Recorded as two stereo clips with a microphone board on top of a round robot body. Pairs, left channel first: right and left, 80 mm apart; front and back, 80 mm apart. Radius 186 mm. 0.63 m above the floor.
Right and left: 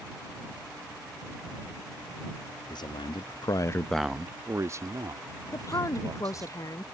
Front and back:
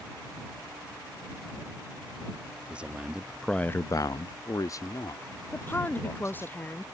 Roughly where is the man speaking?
Right.